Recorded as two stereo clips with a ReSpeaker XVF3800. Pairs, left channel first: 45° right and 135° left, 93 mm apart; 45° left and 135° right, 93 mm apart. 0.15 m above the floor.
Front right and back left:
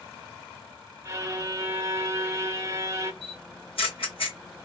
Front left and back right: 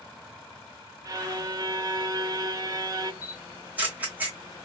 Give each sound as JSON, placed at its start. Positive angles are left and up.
{"t": 1.1, "sound": "a violin", "azimuth_deg": -175, "distance_m": 0.7}
{"t": 3.2, "sound": "a camera shutter", "azimuth_deg": -60, "distance_m": 1.6}